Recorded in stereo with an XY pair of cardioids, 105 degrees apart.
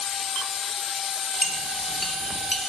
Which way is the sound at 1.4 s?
10° left.